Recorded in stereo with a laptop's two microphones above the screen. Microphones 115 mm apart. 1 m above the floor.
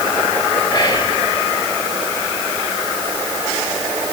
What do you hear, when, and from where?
0.7 s whispering: 30° left (ahead or behind), 1.3 m